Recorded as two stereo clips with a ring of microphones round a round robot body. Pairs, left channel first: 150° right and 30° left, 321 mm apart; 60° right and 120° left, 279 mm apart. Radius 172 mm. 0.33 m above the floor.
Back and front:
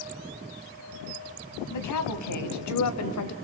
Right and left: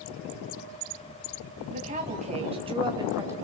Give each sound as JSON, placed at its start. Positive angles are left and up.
{"t": 1.7, "sound": "a woman speaking", "azimuth_deg": -175, "distance_m": 3.0}